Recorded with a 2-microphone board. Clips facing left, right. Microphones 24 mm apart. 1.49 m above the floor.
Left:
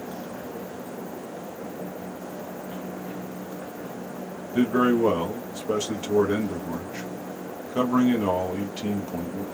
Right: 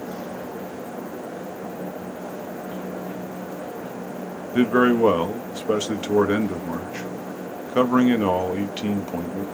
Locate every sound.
4.5 s a man speaking: 35° right (ahead or behind), 0.7 m